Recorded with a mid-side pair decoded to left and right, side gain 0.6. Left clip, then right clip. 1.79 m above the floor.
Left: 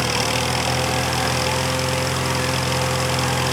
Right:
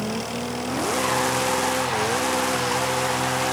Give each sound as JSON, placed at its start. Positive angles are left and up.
{"t": 0.0, "sound": "an engine running", "azimuth_deg": 55}